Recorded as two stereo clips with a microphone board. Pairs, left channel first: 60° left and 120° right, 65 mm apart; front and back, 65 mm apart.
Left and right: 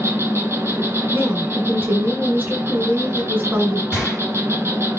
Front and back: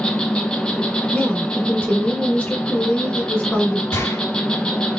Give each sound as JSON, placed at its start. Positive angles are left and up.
{"t": 0.0, "sound": "an insect", "azimuth_deg": -75, "distance_m": 0.8}
{"t": 1.1, "sound": "a woman speaking", "azimuth_deg": -70, "distance_m": 1.9}
{"t": 3.9, "sound": "a gunshot", "azimuth_deg": -45, "distance_m": 3.0}